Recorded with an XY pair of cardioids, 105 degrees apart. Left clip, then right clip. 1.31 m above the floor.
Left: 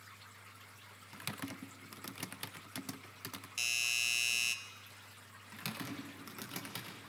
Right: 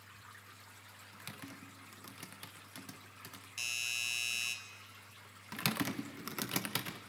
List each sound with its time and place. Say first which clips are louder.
1.1 s typing on a keyboard: left 6 dB; 40° left, 0.7 m
3.6 s a doorbell: left 3 dB; 25° left, 1.3 m
5.5 s typing on a keyboard: right 7 dB; 55° right, 1.2 m